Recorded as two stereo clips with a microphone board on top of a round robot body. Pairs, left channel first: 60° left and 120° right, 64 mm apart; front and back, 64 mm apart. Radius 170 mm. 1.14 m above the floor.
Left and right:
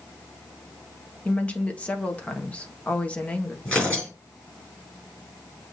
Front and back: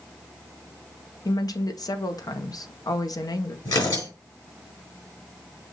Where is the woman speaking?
10° right, 1.3 m.